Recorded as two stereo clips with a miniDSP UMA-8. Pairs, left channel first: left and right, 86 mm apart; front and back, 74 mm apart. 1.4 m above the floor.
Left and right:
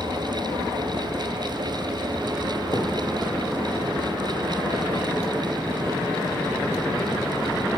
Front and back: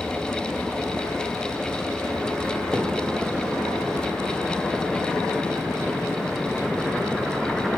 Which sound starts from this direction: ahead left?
A thud, at 2.7 s.